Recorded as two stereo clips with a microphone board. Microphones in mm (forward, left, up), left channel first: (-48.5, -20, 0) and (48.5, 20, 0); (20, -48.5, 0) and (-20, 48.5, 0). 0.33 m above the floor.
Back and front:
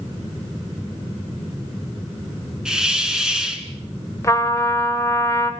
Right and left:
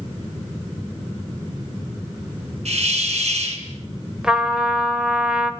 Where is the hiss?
105° left, 2 m.